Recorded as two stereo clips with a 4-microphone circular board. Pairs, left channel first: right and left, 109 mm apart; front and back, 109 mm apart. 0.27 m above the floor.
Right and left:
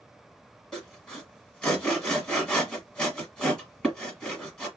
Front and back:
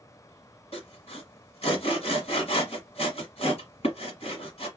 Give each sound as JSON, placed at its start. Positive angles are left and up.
{"t": 0.7, "sound": "sawing", "azimuth_deg": -5, "distance_m": 1.3}